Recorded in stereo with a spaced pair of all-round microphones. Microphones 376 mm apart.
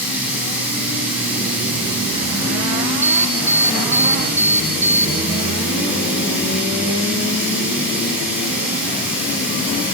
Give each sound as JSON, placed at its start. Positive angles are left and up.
{"t": 0.0, "sound": "running water", "side_deg": -5, "distance_m": 7.5}
{"t": 3.0, "sound": "an alarm", "side_deg": -65, "distance_m": 1.9}